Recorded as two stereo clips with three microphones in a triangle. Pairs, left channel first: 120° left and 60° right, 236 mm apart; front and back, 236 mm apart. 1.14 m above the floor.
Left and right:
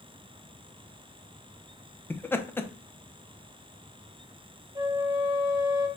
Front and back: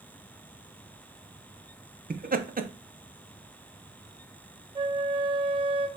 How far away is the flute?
About 0.7 m.